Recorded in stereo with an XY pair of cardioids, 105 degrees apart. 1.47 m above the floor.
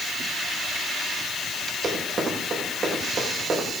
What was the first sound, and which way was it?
Running footsteps, 35° right.